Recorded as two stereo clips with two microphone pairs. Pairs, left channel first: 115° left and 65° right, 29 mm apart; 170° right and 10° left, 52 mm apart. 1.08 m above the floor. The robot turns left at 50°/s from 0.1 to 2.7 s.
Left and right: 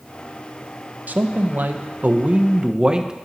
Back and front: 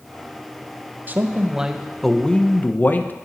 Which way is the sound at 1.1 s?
45° right.